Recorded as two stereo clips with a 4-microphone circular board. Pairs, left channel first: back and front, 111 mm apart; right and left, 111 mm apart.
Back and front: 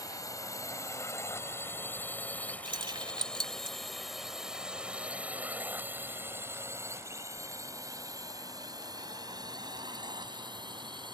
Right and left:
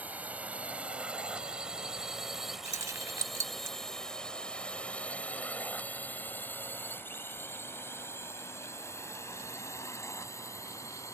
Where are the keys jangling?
35° left.